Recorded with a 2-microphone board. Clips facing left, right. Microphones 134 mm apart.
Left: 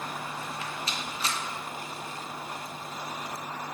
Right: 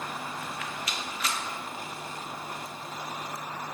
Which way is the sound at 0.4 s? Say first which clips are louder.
Even; 30° left (ahead or behind).